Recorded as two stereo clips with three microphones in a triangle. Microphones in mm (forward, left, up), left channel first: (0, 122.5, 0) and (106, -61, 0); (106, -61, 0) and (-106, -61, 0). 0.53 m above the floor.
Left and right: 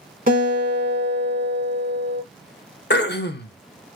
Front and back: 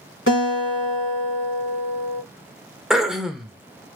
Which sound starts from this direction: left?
Throat clearing, at 2.9 s.